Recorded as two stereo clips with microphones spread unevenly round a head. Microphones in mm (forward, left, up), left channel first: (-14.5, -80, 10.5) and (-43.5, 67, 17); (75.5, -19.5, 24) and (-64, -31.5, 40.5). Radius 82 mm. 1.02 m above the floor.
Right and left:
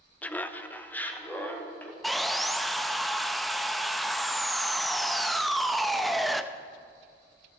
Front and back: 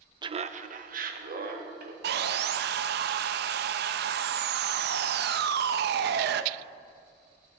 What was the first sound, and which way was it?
Laughter, 140° right.